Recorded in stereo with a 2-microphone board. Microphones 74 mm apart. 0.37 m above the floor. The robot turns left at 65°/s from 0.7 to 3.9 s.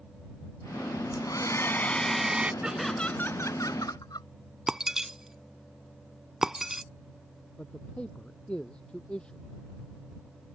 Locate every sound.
1.1 s a hair dryer: 70° left; by 2.5 s 20° right
2.6 s laughter: 170° right; by 4.3 s 110° left
4.7 s breaking glass: 5° right (ahead or behind)
7.6 s a man speaking: 15° left (ahead or behind)